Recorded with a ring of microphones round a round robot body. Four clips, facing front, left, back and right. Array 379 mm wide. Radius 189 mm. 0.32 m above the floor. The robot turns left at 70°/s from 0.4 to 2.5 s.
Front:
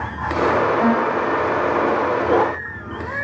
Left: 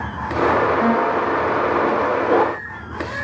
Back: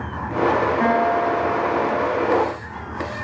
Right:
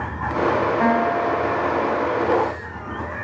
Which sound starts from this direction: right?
A guitar, at 0.8 s.